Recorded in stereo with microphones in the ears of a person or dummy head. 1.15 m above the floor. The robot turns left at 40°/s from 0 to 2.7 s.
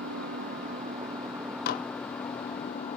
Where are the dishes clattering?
55° left (ahead or behind); by 1.9 s 45° left (ahead or behind).